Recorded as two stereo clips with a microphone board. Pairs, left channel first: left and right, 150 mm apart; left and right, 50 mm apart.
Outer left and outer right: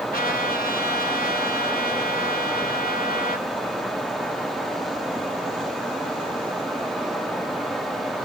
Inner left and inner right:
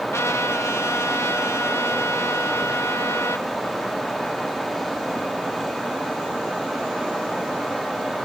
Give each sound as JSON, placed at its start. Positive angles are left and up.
{"t": 0.1, "sound": "a trumpet", "side_deg": 75, "distance_m": 1.6}